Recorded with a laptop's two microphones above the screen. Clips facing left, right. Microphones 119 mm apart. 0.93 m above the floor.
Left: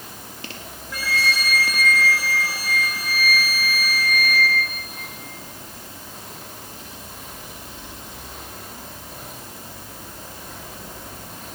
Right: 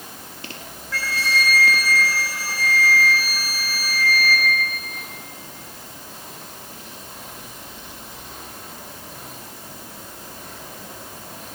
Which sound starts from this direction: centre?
A flute, at 0.9 s.